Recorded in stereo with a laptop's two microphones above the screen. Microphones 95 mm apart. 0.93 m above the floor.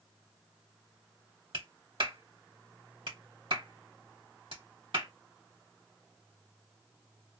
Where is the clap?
70° right (ahead or behind), 2 m.